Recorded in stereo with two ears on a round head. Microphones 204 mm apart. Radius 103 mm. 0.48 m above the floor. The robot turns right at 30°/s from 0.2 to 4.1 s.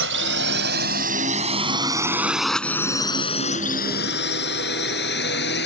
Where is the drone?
55° right (ahead or behind); by 5.7 s 45° left (ahead or behind).